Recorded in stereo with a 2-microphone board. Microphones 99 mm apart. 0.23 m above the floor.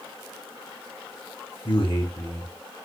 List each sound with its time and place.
1.6 s a man speaking: 60° left (ahead or behind), 3 m